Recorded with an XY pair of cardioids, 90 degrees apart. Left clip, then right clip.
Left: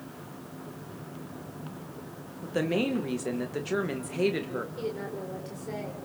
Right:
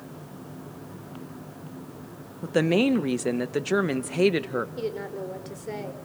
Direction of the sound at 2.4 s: 50° right.